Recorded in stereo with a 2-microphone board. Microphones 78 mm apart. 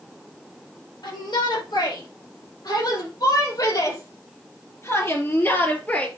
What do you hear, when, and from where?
1.0 s a shout: 65° left (ahead or behind), 6.5 m; by 6.1 s 20° left (ahead or behind), 3 m